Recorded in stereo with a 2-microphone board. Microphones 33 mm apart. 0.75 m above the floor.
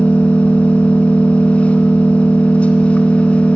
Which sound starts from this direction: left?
An engine running, at 0.0 s.